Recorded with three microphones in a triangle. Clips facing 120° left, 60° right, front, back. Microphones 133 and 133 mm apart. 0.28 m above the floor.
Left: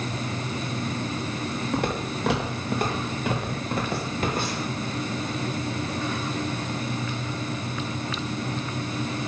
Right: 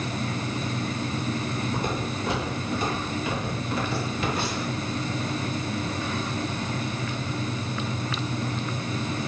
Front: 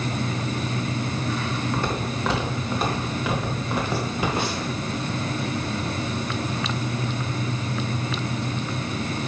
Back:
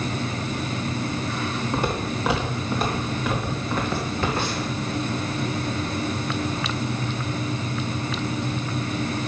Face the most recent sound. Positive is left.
turn(degrees=70)